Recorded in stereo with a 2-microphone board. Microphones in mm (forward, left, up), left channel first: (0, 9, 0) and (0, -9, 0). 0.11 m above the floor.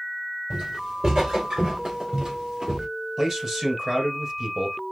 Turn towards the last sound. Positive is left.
turn(degrees=-25)  # may be behind; listen again after turning